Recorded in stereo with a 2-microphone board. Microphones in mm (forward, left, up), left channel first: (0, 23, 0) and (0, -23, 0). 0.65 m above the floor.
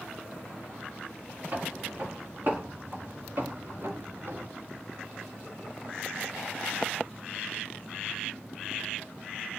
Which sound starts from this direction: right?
Footsteps, at 1.5 s.